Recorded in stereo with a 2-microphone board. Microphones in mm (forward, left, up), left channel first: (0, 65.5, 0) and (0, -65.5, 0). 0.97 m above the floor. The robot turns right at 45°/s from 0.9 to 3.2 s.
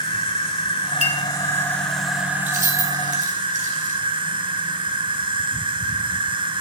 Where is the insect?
130° left, 1.2 m; by 6.6 s 125° right, 1.2 m.